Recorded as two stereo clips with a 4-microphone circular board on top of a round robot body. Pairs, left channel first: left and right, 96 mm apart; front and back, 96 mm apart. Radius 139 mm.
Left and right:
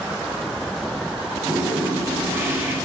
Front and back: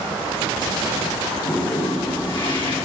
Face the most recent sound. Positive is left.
turn(degrees=-30)